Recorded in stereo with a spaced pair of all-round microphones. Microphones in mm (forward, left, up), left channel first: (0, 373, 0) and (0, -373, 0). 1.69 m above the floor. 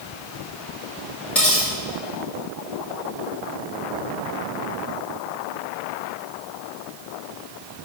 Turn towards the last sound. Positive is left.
turn(degrees=0)  # may be behind; listen again after turning